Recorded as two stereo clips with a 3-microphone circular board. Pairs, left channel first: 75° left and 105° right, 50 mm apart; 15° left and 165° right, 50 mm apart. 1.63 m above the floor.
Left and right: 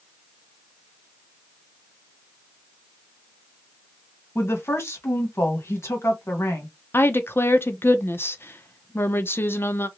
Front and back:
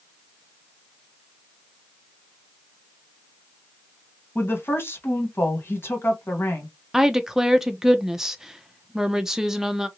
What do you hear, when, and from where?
4.3 s a woman speaking: 50° left, 1.4 m
6.9 s a woman speaking: 115° left, 0.6 m